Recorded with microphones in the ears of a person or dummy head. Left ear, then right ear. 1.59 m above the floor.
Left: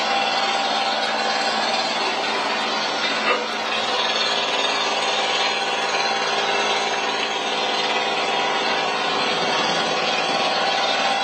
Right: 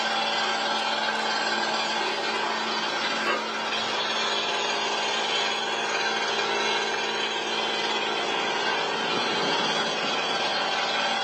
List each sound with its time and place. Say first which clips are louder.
0.0 s an engine running: left 5 dB; 30° left (ahead or behind), 1.1 m